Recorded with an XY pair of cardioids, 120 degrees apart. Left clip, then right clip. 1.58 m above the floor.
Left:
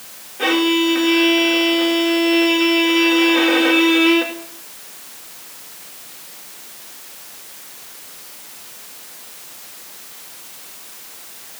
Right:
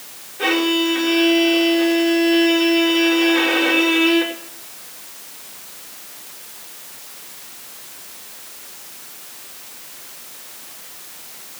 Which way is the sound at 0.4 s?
25° left.